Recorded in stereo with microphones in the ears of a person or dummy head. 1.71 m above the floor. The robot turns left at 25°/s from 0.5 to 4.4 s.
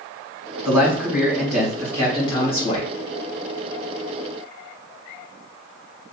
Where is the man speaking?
165° right, 1.9 m; by 2.9 s 140° left, 1.9 m.